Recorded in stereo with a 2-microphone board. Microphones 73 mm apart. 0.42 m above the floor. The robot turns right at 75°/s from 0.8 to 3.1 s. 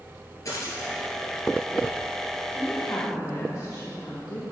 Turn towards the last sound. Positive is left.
turn(degrees=75)